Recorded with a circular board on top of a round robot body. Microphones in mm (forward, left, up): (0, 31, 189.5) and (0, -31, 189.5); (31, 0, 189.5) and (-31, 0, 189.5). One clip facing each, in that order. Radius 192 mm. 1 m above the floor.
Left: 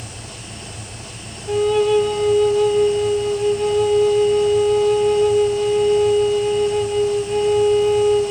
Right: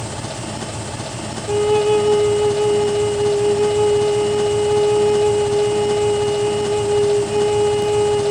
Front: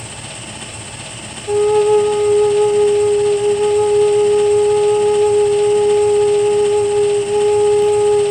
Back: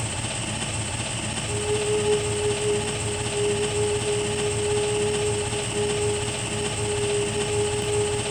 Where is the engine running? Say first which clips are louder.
Right 9 dB, back 1 dB; 90° right, 0.7 m.